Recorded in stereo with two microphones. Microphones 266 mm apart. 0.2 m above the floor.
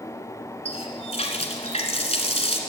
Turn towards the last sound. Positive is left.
turn(degrees=25)  # may be behind; listen again after turning